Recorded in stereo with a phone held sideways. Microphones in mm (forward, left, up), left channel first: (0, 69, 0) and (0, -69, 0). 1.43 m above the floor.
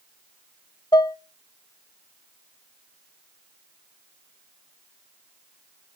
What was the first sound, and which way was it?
Dishes clattering, 30° left (ahead or behind).